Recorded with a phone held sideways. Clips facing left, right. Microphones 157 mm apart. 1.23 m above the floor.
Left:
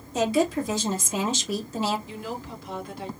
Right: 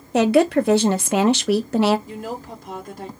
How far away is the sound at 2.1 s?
About 1.7 m.